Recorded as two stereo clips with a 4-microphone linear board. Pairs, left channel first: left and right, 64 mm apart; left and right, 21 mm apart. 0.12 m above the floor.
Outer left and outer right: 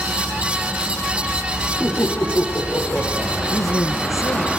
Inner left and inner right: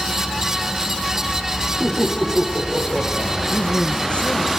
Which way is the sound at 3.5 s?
55° left (ahead or behind).